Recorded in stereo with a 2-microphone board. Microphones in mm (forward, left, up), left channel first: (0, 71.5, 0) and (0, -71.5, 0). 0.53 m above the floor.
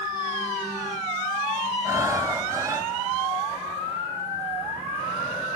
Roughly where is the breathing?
Right.